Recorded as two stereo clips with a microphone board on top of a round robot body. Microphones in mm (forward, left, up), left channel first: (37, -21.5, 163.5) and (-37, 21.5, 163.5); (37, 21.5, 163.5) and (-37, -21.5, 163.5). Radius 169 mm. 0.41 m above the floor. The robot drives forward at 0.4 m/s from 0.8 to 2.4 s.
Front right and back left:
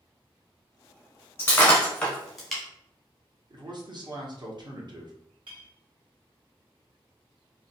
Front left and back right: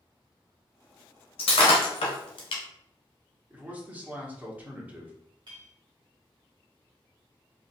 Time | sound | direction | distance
1.4 | breaking glass | 40° left | 0.9 m
3.5 | a man speaking | 140° left | 1.2 m
5.5 | a clink | straight behind | 1.5 m